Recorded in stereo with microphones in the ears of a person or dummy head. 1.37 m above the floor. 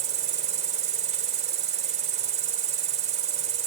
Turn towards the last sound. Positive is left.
turn(degrees=-40)  # may be behind; listen again after turning